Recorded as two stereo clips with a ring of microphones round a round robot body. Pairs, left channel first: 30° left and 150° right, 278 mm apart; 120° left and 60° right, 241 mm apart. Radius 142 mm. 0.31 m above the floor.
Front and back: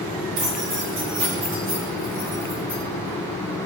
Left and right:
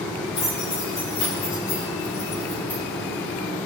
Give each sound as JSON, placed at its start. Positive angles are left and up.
{"t": 0.4, "sound": "keys jangling", "azimuth_deg": -170, "distance_m": 5.0}